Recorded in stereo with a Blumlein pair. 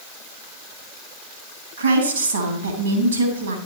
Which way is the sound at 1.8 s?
70° right.